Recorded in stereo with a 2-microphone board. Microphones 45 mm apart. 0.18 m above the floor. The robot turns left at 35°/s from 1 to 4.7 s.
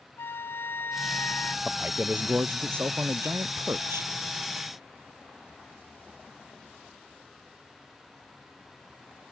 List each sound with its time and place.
0.2 s a flute: 60° left (ahead or behind); by 1.6 s 45° left (ahead or behind)
1.6 s a man speaking: 25° right; by 4.1 s 110° right